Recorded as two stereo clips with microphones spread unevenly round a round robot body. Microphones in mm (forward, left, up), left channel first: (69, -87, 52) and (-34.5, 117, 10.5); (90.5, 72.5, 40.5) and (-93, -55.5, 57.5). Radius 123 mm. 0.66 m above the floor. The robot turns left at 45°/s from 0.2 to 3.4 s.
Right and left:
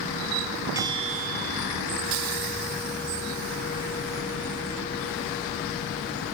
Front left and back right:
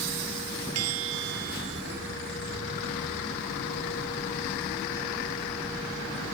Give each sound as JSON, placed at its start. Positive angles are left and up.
{"t": 0.8, "sound": "a bell", "azimuth_deg": -165}